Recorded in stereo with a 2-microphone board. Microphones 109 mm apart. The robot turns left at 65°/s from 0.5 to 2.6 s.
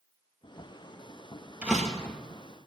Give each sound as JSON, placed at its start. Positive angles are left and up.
{"t": 1.6, "sound": "a door slam", "azimuth_deg": -170, "distance_m": 2.0}